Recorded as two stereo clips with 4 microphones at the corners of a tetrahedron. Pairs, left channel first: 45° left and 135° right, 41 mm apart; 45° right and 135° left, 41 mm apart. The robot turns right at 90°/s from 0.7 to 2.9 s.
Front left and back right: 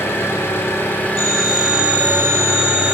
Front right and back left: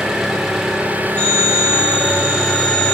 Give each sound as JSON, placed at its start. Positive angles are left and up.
{"t": 0.0, "sound": "an engine running", "azimuth_deg": 55, "distance_m": 3.0}
{"t": 1.2, "sound": "a phone ringing", "azimuth_deg": 15, "distance_m": 7.0}